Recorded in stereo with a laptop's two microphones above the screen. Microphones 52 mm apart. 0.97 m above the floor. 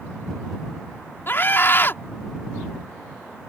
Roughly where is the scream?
Left.